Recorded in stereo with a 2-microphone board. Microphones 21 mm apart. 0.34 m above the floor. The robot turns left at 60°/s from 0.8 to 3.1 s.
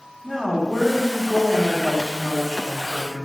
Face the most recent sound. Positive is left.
turn(degrees=75)